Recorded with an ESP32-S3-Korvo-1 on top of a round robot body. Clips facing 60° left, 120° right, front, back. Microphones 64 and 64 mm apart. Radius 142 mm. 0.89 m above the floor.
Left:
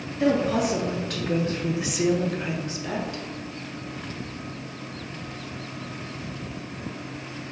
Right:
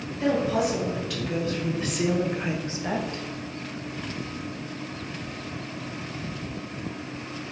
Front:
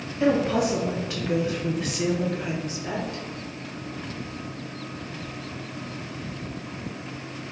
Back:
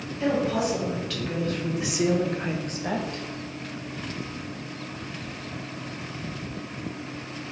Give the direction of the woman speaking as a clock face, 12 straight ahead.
11 o'clock.